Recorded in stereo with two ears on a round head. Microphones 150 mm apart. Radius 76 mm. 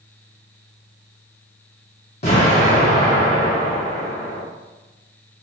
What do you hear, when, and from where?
2.2 s an explosion: 40° left (ahead or behind), 1.1 m